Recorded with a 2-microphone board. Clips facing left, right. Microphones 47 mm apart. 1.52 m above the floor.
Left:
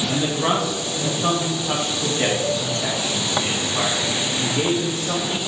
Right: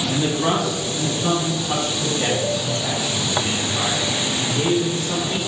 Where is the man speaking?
15° left (ahead or behind), 2.5 m; by 5.4 s 85° left, 2.5 m.